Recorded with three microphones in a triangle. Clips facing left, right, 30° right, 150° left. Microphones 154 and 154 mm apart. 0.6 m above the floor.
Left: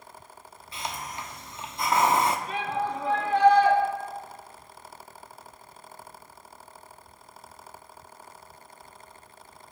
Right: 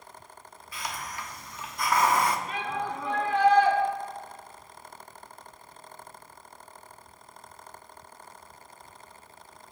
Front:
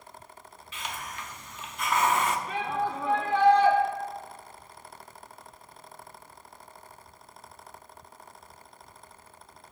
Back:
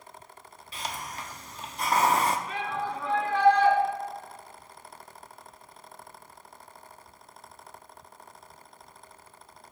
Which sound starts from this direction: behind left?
A hiss, at 0.7 s.